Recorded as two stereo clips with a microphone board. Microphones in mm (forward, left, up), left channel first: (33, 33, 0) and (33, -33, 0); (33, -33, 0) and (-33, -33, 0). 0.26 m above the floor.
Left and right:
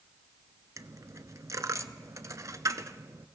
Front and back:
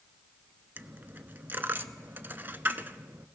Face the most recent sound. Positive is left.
turn(degrees=-120)